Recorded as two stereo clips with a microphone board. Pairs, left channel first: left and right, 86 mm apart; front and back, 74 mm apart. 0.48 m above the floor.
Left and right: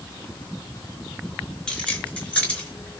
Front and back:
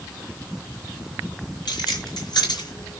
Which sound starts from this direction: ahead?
Keys jangling, at 1.7 s.